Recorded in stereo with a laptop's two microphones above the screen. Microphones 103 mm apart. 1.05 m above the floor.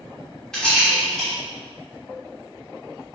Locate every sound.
0.5 s a rattle: 5° left (ahead or behind), 2.5 m